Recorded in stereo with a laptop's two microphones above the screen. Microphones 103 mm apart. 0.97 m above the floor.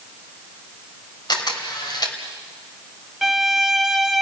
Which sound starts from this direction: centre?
A violin, at 3.2 s.